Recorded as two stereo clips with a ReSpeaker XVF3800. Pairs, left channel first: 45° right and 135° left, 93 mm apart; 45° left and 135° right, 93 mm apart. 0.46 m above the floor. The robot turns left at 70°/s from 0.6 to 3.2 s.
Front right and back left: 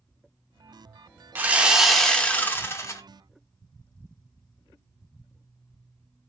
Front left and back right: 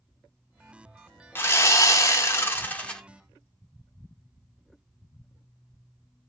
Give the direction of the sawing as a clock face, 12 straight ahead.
9 o'clock.